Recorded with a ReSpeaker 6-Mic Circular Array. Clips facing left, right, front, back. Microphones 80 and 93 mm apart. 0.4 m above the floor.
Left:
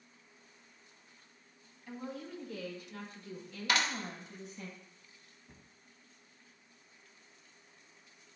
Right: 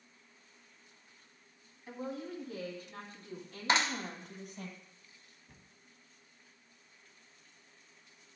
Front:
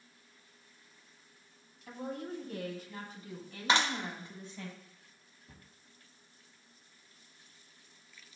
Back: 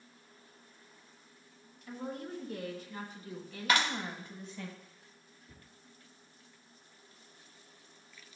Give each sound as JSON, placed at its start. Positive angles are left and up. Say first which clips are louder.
{"t": 1.9, "sound": "a woman speaking", "louder": "right 2 dB, front 1 dB", "azimuth_deg": -20, "distance_m": 2.5}
{"t": 3.7, "sound": "a clap", "louder": "right 2 dB, front 1 dB", "azimuth_deg": -45, "distance_m": 1.0}
{"t": 5.5, "sound": "a cupboard door", "louder": "left 3 dB, front 1 dB", "azimuth_deg": 15, "distance_m": 1.1}